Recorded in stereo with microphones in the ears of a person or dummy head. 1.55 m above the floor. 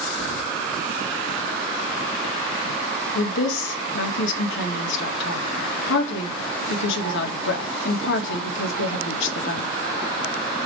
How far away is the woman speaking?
About 1.9 m.